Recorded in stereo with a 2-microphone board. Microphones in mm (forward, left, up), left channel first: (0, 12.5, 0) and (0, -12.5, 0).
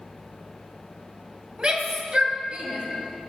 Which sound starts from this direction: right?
A shout, at 1.6 s.